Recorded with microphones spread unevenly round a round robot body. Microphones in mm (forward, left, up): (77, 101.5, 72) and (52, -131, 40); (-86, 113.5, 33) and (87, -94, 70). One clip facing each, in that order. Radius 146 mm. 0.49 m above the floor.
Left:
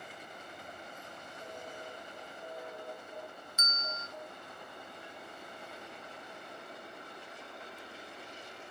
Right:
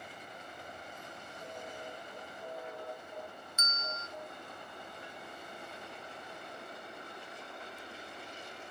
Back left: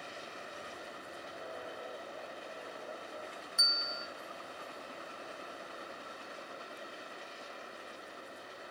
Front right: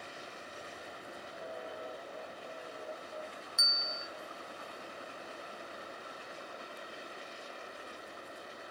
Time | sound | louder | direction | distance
3.6 | a bell | right 1 dB, even | 100° right | 0.8 m